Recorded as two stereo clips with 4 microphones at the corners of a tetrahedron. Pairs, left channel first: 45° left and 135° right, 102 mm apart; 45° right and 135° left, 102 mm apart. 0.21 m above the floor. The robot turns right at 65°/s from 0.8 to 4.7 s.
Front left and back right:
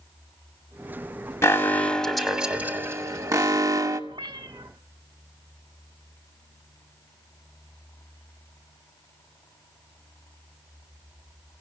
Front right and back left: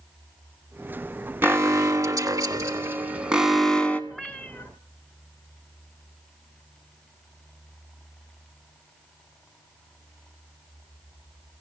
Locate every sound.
1.4 s an alarm: 85° left, 1.2 m; by 4.0 s 110° right, 1.2 m
4.1 s a cat meowing: 130° right, 1.1 m; by 4.7 s 95° right, 1.1 m